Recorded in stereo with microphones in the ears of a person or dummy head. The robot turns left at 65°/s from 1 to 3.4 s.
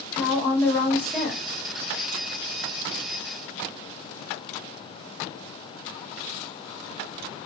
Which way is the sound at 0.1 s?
15° left (ahead or behind).